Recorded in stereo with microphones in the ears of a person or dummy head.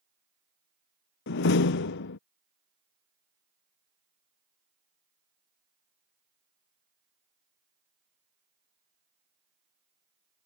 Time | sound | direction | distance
1.3 | a door slam | 65° left (ahead or behind) | ?